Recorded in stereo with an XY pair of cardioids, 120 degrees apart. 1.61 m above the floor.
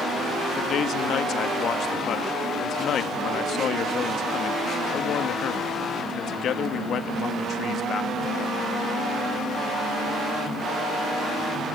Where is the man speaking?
55° left, 2 m.